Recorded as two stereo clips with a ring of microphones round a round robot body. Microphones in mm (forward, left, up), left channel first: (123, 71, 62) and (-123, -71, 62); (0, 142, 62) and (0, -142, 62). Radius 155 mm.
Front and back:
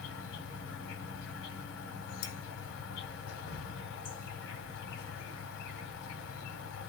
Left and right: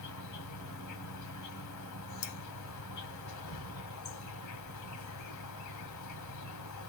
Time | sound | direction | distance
0.0 | an insect | 75° left | 1.1 m
2.2 | cutlery clinking | 90° left | 0.7 m